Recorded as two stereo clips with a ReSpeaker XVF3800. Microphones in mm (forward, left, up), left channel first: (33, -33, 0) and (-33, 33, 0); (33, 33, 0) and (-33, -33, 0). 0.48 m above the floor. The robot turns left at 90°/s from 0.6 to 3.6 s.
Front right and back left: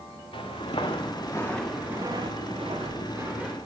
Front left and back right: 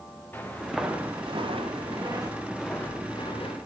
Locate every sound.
0.3 s footsteps: 25° right, 2.5 m; by 3.6 s 50° left, 5 m